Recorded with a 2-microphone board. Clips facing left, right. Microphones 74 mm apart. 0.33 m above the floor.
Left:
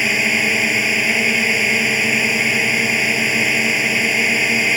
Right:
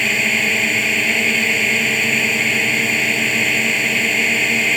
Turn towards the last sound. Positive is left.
turn(degrees=5)  # may be behind; listen again after turning